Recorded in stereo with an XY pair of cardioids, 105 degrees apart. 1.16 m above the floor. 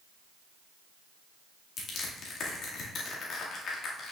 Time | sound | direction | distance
1.8 | crushing | 60° left | 2 m